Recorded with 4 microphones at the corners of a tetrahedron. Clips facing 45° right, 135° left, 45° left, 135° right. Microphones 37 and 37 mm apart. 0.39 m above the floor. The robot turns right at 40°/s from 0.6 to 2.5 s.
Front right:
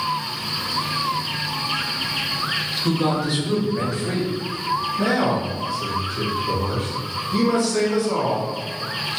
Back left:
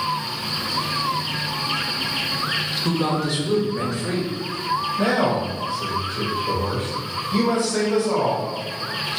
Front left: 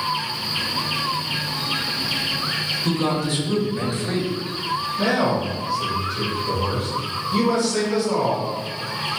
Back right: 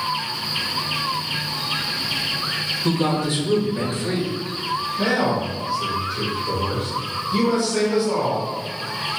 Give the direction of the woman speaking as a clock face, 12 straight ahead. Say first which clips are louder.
Front right 2 dB, back right 2 dB; 4 o'clock.